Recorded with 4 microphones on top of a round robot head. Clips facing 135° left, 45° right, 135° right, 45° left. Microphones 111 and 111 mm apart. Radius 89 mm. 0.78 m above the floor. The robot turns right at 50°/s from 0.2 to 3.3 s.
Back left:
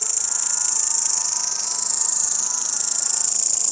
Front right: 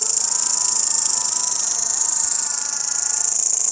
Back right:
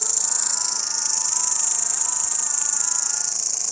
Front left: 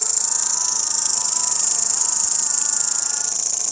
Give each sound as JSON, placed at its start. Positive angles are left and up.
{"t": 0.0, "sound": "an insect", "azimuth_deg": -50}